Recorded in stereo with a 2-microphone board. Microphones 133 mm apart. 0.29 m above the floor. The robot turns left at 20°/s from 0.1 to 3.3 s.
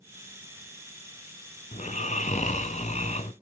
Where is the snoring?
105° left, 0.8 m; by 3.3 s 75° left, 0.8 m.